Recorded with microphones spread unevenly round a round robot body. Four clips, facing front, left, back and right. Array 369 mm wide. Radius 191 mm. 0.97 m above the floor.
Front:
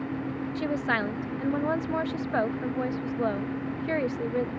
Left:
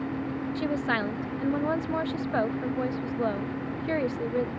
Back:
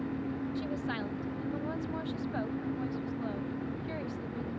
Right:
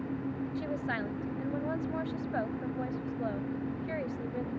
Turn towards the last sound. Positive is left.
turn(degrees=35)